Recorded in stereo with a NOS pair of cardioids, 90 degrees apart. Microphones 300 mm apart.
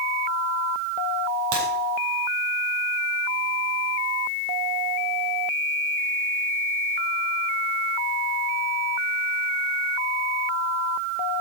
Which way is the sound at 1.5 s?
70° right.